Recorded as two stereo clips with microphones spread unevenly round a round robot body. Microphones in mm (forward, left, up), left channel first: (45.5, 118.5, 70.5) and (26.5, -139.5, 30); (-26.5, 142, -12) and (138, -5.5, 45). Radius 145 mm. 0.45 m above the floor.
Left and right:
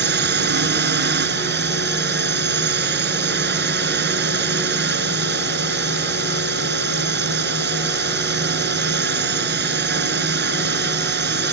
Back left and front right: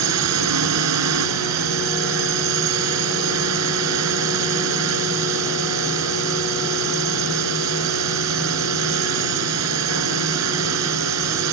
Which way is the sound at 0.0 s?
45° right.